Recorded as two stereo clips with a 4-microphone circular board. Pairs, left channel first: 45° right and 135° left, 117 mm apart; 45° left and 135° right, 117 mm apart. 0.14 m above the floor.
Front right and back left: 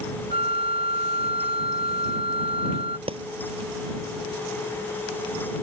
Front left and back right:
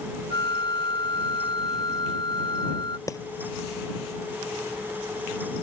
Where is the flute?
100° left.